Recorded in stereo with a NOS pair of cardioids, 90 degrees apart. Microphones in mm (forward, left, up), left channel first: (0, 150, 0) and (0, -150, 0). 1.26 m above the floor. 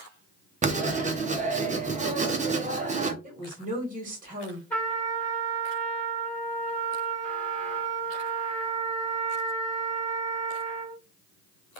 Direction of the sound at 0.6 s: 25° right.